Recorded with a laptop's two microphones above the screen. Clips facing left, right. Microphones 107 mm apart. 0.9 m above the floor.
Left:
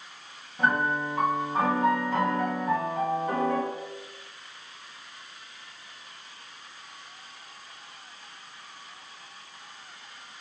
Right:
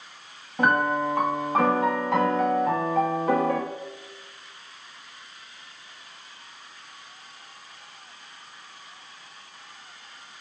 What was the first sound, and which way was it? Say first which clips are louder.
A piano: right 4 dB; 80° right.